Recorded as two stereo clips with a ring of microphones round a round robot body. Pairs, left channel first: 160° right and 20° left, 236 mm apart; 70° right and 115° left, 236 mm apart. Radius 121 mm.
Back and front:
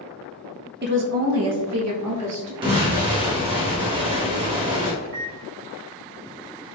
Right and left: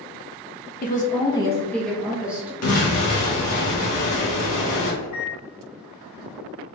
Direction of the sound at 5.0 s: 15° right.